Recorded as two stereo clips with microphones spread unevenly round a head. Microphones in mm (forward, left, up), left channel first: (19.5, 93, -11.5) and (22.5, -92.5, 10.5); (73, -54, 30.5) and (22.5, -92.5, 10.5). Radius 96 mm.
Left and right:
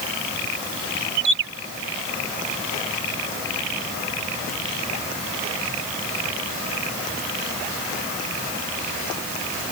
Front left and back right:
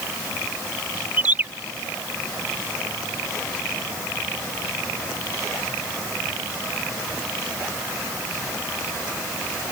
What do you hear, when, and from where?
1.2 s a bird: 75° right